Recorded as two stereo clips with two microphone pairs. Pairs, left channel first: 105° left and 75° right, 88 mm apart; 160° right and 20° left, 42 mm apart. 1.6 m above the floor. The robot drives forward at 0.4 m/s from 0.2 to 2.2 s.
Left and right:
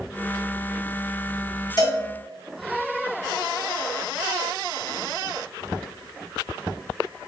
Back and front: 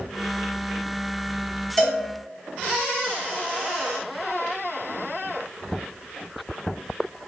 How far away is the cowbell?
About 2.0 m.